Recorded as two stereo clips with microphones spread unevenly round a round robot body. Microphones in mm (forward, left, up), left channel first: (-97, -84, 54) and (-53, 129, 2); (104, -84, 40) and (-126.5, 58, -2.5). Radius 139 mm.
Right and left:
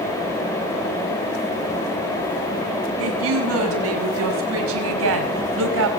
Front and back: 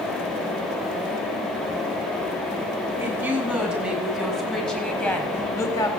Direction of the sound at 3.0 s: 65° left.